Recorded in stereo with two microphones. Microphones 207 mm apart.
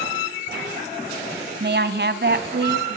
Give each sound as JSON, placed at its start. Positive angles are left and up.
{"t": 1.6, "sound": "a woman speaking", "side_deg": -55, "distance_m": 1.5}